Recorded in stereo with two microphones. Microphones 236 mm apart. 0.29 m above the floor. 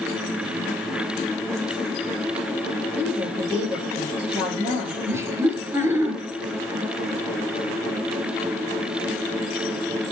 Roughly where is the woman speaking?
Centre.